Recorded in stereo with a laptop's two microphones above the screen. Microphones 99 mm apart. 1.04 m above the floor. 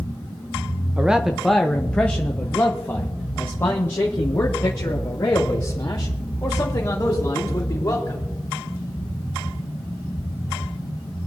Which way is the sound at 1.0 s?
15° right (ahead or behind).